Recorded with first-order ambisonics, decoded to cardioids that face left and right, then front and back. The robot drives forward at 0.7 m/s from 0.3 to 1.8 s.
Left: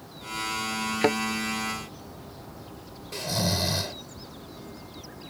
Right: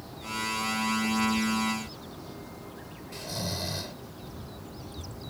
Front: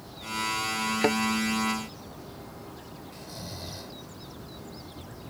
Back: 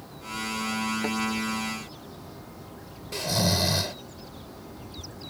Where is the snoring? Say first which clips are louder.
Left 7 dB, back 18 dB; 155° left.